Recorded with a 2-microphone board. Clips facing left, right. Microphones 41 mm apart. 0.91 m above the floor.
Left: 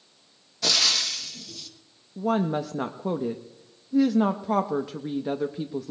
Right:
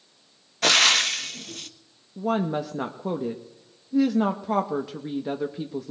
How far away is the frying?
About 0.7 m.